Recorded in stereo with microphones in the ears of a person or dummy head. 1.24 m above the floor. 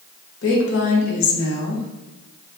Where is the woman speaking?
60° left (ahead or behind), 1.3 m.